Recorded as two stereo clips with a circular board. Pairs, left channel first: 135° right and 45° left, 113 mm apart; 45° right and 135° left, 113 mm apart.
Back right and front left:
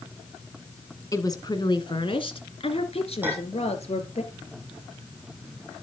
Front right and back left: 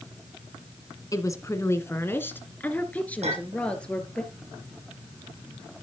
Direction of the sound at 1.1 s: 90° right.